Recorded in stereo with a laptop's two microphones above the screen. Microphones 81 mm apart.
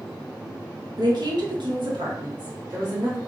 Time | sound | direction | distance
1.0 | a woman speaking | 55° right (ahead or behind) | 0.9 m